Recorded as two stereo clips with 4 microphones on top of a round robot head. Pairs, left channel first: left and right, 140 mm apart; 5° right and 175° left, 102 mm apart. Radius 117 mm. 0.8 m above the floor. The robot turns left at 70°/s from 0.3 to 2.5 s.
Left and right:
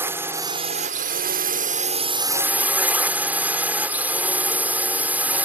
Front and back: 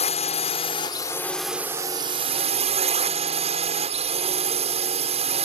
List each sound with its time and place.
0.0 s a drone: 15° right; by 5.5 s 170° right